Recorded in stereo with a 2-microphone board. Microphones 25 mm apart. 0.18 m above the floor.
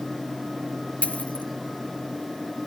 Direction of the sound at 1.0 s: 70° left (ahead or behind).